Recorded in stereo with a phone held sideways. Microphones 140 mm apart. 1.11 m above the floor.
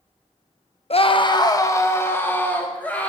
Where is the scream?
45° left (ahead or behind), 0.9 m; by 3.1 s 10° left (ahead or behind), 3 m.